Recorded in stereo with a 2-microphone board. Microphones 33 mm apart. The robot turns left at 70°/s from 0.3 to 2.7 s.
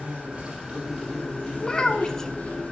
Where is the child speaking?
25° left (ahead or behind), 0.6 m; by 2.3 s 15° left (ahead or behind), 0.6 m.